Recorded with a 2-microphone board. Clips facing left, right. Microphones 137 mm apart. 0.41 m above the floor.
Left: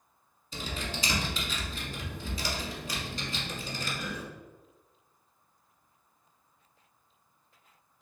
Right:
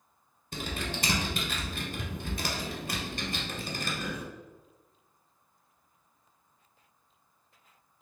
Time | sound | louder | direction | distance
0.5 | typing on a keyboard | right 2 dB | 60° right (ahead or behind) | 1.0 m